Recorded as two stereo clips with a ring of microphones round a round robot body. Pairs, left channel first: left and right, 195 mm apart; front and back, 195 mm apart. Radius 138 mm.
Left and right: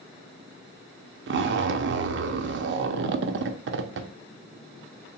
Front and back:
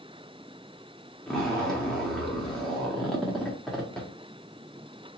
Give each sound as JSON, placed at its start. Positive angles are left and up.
{"t": 1.3, "sound": "a zipper", "azimuth_deg": -90, "distance_m": 0.6}